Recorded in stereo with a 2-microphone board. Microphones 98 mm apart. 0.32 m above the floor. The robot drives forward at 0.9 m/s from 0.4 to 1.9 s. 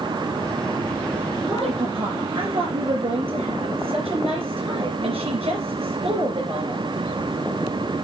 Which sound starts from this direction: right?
A woman speaking, at 1.4 s.